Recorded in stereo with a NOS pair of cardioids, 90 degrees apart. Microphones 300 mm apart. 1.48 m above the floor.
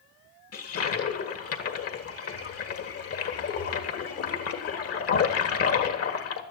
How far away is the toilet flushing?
About 1.6 m.